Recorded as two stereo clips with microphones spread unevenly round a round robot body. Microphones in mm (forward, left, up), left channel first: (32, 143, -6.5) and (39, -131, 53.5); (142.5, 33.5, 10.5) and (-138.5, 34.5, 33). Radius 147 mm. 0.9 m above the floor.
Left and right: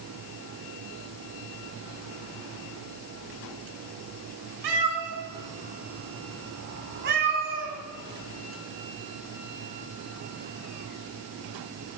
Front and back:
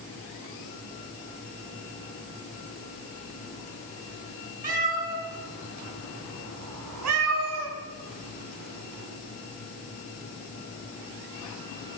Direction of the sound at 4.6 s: 115° right.